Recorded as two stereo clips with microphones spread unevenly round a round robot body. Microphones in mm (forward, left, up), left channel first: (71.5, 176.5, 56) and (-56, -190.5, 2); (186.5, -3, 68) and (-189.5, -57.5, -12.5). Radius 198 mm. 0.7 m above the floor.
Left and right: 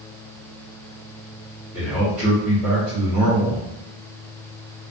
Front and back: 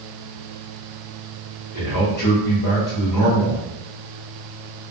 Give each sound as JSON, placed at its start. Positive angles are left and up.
{"t": 1.7, "sound": "a man speaking", "azimuth_deg": -30, "distance_m": 1.6}